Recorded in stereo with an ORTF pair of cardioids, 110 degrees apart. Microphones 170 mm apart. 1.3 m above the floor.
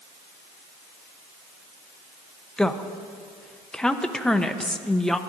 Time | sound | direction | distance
2.6 | a woman speaking | 5° left | 0.8 m